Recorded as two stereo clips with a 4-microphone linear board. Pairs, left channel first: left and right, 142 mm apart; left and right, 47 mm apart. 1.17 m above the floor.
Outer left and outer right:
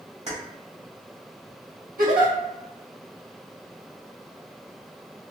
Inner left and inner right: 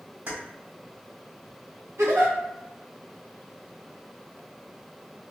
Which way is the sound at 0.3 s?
50° right (ahead or behind).